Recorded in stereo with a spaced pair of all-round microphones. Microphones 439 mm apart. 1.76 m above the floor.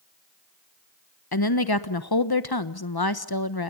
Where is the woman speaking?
55° left (ahead or behind), 1.2 m.